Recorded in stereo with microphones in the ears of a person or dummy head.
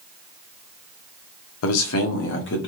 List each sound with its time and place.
1.6 s a man speaking: 85° left, 0.8 m; by 2.7 s 60° left (ahead or behind), 0.9 m